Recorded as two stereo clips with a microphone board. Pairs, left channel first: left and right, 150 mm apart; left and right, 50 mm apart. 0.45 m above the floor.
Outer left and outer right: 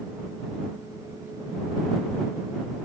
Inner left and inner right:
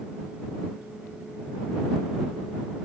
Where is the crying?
I don't hear crying.